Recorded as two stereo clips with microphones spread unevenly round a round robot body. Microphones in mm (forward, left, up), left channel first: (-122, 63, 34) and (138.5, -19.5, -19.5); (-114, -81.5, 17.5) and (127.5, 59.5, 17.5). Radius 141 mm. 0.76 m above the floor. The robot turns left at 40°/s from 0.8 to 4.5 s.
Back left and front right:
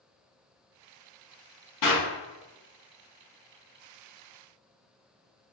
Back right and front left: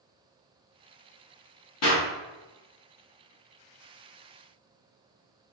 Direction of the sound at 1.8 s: 175° right.